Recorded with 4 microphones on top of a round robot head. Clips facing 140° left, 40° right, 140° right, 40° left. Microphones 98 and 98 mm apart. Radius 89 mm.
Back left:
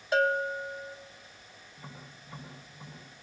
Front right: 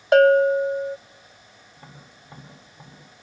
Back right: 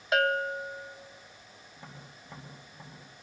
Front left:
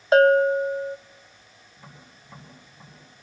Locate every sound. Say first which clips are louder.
0.1 s a bell: front right 13 dB, front left 12 dB; 15° right, 0.6 m
1.8 s tapping: even, even; 90° right, 8 m